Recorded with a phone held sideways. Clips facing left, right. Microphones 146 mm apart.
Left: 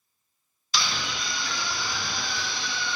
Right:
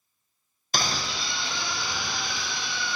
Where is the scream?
50° right (ahead or behind), 0.6 m; by 3.0 s 15° right (ahead or behind), 3 m.